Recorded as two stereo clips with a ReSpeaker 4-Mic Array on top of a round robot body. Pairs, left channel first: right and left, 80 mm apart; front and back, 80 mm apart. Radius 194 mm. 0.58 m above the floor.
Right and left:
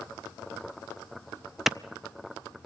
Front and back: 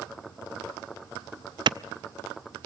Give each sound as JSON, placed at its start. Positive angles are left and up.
{"t": 1.7, "sound": "a clap", "azimuth_deg": 175, "distance_m": 0.6}